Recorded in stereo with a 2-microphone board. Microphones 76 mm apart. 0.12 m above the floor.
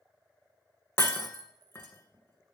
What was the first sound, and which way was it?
Breaking glass, 30° left (ahead or behind).